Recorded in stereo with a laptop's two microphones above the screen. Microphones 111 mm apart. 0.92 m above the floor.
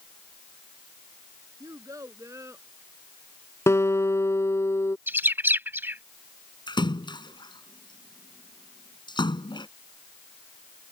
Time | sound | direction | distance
1.6 | a child speaking | 30° right (ahead or behind) | ?
3.7 | a guitar | 25° left (ahead or behind) | ?
5.1 | a bird | 20° right (ahead or behind) | ?
6.7 | a splash | 45° left (ahead or behind) | ?